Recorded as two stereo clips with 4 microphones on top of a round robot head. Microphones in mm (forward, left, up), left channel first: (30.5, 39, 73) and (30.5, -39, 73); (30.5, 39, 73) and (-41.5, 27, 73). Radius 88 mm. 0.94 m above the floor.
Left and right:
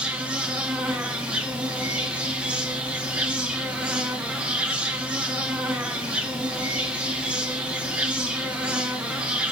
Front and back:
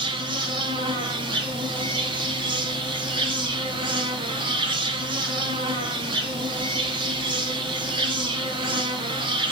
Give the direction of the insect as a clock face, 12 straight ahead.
6 o'clock.